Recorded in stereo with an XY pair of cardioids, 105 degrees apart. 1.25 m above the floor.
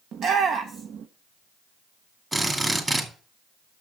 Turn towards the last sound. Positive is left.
turn(degrees=-20)